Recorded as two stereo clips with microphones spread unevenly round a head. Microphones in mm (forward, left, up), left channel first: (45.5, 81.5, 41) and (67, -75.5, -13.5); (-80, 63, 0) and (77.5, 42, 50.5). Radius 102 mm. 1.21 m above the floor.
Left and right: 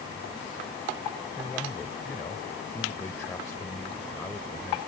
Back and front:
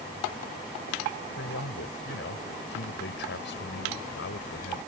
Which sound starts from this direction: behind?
A man speaking, at 1.4 s.